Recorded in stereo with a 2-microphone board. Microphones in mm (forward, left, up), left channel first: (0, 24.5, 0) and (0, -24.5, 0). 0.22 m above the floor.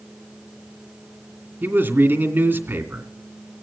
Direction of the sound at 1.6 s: 50° right (ahead or behind).